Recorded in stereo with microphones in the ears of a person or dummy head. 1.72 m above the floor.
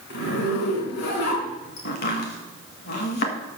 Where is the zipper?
55° left (ahead or behind), 3.5 m.